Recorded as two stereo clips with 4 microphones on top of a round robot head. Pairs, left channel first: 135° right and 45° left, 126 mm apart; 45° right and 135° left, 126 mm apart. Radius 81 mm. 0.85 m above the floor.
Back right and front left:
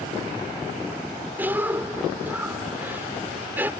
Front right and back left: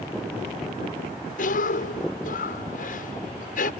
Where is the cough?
30° right.